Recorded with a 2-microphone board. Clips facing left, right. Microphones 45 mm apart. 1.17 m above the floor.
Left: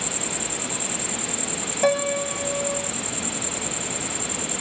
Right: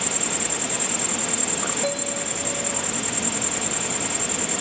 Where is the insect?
65° right (ahead or behind).